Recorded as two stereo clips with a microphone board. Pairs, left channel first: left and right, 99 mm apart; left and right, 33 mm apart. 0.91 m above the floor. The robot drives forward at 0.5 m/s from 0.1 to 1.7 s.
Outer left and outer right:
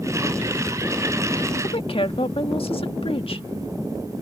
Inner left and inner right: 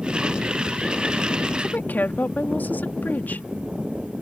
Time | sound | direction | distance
1.6 | a woman speaking | 70° left (ahead or behind) | ?